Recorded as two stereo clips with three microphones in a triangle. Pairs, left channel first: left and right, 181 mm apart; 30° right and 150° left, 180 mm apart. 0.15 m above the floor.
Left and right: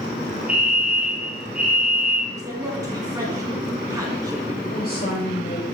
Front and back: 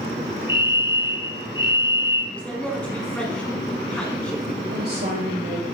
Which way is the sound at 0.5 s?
10° right.